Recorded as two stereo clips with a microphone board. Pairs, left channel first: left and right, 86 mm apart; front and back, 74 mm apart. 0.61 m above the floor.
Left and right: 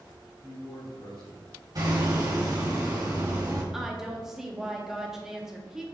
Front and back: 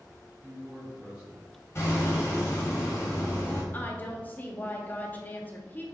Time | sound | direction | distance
0.4 | a man speaking | 120° left | 1.5 m
1.8 | hammering | 50° right | 1.5 m
3.7 | a woman speaking | 15° right | 0.7 m